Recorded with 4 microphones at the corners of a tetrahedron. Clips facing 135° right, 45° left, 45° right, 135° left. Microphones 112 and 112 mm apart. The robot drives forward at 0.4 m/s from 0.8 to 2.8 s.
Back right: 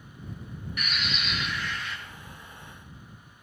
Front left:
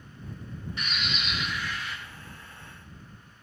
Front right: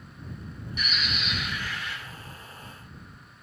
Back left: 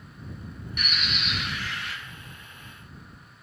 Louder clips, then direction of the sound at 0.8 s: Back right 1 dB, even; 110° left.